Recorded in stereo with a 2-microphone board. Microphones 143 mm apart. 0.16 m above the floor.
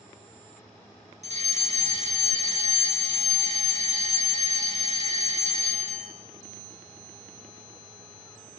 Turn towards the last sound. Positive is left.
turn(degrees=-50)  # may be behind; listen again after turning